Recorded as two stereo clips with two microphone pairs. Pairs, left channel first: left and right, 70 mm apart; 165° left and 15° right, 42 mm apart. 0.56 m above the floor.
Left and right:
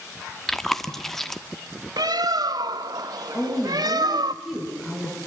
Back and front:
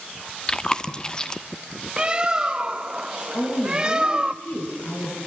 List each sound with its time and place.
0.5 s chewing: 165° left, 1.0 m
2.0 s a bird: 85° right, 0.7 m
3.3 s a woman speaking: 175° left, 8 m